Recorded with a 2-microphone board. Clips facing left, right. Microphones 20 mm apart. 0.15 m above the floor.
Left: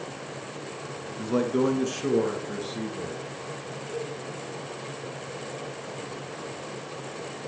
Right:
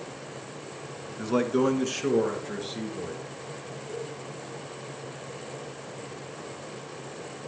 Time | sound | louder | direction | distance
1.2 | a man speaking | even | 20° right (ahead or behind) | 1.4 m
3.9 | a cowbell | left 3 dB | 5° right (ahead or behind) | 1.2 m